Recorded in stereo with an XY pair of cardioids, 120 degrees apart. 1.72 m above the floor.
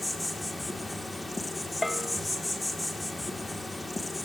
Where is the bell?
10° left, 2.5 m.